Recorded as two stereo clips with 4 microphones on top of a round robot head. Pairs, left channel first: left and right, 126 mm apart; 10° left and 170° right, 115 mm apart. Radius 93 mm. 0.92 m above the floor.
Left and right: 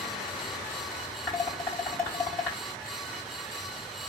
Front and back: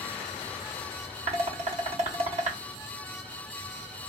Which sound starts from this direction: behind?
Dishes clattering, at 1.3 s.